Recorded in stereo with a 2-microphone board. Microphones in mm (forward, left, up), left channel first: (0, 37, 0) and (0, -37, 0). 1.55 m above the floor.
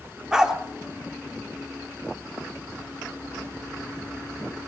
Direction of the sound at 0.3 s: 10° right (ahead or behind).